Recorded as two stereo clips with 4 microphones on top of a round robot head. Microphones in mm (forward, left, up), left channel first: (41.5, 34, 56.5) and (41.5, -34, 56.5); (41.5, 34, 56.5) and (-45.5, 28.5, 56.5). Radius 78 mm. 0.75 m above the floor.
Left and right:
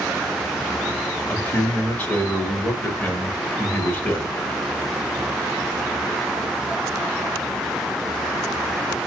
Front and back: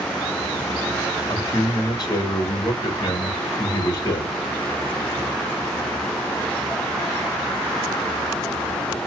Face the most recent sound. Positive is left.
turn(degrees=35)